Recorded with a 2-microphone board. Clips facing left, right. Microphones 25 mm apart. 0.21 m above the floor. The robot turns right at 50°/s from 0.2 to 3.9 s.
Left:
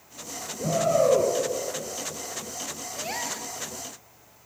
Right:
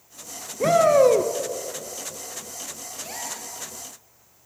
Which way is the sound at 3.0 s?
35° left (ahead or behind).